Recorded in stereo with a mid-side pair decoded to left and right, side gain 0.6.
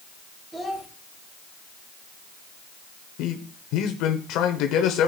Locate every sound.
0.5 s a child speaking: 10° right, 3 m
3.2 s a man speaking: 70° left, 1.0 m